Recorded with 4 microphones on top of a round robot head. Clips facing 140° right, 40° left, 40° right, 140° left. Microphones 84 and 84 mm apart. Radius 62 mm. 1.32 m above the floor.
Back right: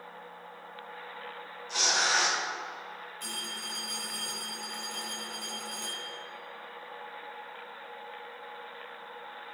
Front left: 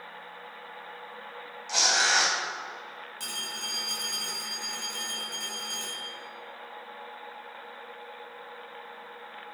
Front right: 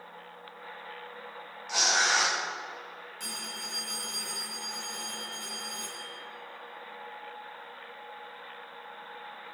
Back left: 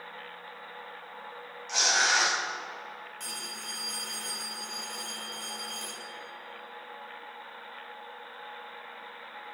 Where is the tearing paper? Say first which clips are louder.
Front left 3 dB, even; 45° left, 4.5 m.